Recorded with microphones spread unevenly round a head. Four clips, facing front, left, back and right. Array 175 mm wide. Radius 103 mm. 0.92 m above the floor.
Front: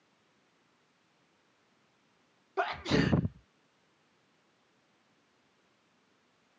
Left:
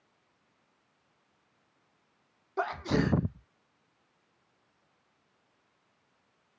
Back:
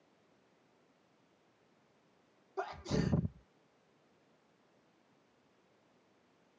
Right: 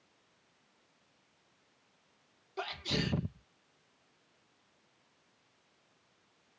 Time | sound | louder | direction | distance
2.6 | a sneeze | left 8 dB, front 7 dB | 40° left | ?